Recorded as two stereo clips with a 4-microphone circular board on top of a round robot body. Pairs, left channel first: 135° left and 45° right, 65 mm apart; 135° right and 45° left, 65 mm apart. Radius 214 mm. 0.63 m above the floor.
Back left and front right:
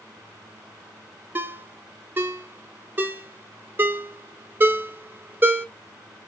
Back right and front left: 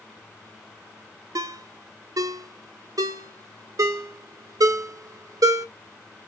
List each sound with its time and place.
1.4 s a ringtone: 15° left, 0.5 m